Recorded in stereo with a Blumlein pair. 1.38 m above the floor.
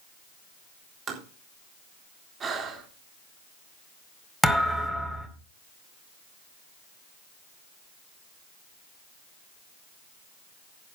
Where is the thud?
5° right, 2.5 m.